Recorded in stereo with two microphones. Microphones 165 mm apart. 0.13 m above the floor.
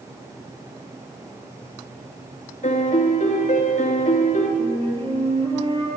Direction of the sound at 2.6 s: 50° left (ahead or behind).